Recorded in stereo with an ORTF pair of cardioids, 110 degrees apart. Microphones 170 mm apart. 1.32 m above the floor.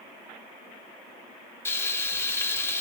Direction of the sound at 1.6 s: 15° left.